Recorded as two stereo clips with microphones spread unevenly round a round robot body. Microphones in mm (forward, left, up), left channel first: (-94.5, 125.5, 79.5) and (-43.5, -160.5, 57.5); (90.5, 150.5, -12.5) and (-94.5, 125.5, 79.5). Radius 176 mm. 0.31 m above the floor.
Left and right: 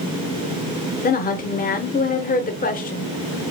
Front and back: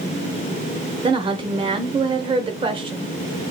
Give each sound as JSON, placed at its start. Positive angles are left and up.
{"t": 1.0, "sound": "a woman speaking", "azimuth_deg": 90, "distance_m": 0.9}